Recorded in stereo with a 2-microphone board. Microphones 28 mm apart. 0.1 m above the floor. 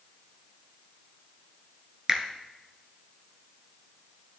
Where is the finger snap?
20° right (ahead or behind), 1.0 m.